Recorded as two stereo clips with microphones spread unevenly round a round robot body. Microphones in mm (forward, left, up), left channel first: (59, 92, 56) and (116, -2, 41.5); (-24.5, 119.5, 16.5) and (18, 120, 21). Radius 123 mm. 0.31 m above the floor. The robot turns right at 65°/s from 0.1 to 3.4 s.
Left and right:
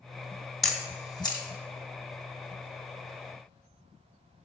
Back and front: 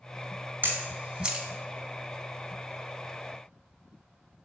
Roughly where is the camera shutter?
Ahead left.